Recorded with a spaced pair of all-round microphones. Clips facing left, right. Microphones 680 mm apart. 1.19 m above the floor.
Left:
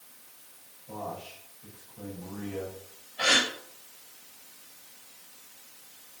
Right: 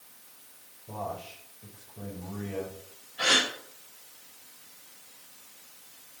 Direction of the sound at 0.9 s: 60° right (ahead or behind).